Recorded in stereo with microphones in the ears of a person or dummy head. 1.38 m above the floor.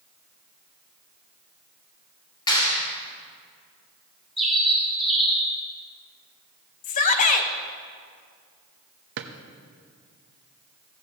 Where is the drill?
No drill in this recording.